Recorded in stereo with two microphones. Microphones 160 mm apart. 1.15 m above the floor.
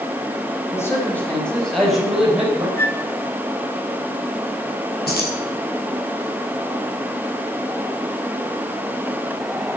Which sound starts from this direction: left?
Keys jangling, at 5.1 s.